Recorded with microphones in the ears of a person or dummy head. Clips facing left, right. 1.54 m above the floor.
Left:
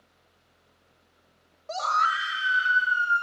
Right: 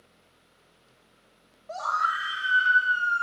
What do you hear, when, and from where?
1.7 s a scream: 50° left (ahead or behind), 0.8 m; by 3.2 s 20° left (ahead or behind), 2 m